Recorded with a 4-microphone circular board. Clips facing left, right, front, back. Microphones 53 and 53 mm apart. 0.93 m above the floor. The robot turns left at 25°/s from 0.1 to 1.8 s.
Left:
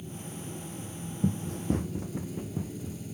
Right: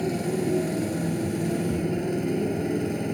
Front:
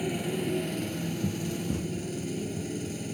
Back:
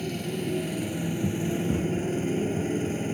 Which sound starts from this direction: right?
A motorcycle, at 0.0 s.